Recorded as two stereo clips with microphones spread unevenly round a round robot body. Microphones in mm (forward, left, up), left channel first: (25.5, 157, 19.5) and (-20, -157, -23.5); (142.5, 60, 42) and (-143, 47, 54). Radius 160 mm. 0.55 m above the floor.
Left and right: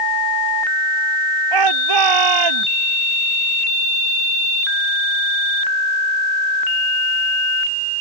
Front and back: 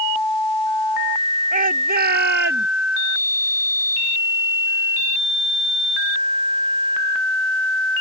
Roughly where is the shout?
Right.